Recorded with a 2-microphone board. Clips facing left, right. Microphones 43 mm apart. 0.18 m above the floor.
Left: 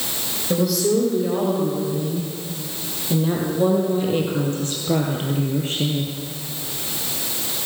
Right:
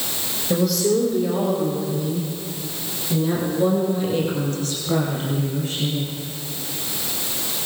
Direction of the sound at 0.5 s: 5° left (ahead or behind).